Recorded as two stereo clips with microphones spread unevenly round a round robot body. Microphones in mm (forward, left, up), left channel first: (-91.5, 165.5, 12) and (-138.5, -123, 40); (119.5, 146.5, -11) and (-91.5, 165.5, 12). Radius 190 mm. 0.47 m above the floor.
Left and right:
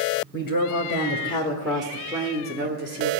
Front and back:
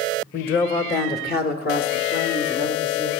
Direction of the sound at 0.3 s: 30° left.